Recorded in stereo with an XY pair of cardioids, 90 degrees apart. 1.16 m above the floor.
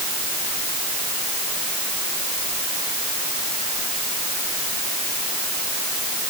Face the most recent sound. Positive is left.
No sound to turn to.